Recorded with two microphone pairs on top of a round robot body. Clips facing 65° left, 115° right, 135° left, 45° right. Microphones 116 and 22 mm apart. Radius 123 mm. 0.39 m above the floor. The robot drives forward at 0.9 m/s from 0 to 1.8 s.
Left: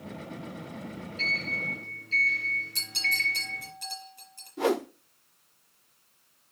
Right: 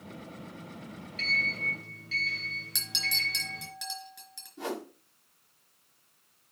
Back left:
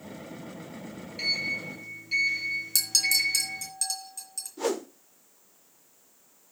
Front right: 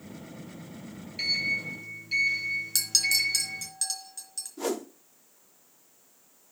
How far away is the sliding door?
About 5 m.